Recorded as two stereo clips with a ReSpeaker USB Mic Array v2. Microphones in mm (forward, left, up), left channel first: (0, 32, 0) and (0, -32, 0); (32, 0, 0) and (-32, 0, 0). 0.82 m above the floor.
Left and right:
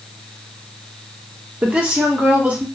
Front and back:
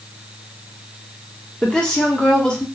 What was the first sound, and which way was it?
A woman speaking, 55° right.